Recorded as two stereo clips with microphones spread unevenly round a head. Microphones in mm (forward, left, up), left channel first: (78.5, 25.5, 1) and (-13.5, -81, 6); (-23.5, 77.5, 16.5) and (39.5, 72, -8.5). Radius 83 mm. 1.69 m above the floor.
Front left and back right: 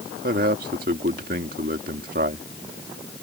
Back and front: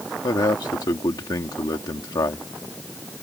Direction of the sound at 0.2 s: 170° right.